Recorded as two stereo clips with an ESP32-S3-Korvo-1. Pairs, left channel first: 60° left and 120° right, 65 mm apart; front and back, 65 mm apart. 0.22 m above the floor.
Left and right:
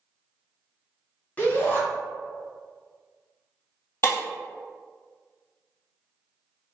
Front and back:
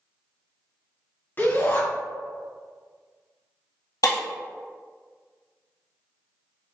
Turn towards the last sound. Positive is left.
turn(degrees=10)